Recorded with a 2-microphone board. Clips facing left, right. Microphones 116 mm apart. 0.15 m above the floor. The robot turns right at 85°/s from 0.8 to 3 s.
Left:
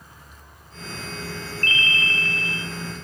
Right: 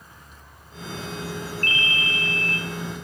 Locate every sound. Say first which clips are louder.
1.6 s a ringtone: left 4 dB; 65° right, 0.5 m; by 2.6 s 15° left, 0.5 m